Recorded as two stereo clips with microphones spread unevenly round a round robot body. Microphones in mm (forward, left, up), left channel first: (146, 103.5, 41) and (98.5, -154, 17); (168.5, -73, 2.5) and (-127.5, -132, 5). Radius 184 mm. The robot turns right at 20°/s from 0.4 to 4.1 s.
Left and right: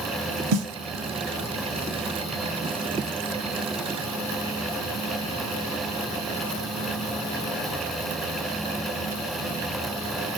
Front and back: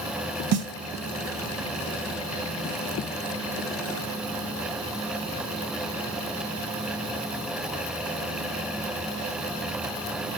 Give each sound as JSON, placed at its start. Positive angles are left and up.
{"t": 0.5, "sound": "a snare drum", "azimuth_deg": -130, "distance_m": 0.9}